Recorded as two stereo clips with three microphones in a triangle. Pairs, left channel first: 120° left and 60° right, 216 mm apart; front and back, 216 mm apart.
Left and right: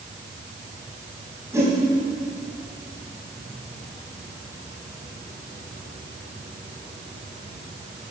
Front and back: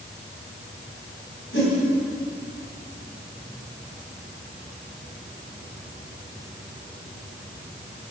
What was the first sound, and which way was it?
A whoosh, 15° left.